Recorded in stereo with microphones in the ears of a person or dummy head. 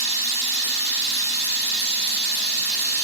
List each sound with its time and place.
0.0 s running water: 35° left (ahead or behind), 1.4 m